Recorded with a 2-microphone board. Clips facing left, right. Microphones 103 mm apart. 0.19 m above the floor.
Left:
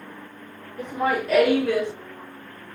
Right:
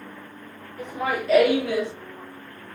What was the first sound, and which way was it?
Laughter, 35° left (ahead or behind).